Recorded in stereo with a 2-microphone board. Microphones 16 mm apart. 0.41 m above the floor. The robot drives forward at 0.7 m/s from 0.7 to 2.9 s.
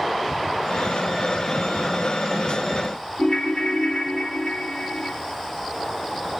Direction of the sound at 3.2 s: 45° left (ahead or behind).